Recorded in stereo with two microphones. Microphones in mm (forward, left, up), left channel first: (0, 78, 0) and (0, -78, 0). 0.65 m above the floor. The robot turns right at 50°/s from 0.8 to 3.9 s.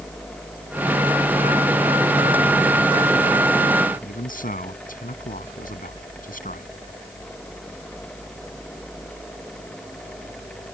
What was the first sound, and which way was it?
A man speaking, 60° left (ahead or behind).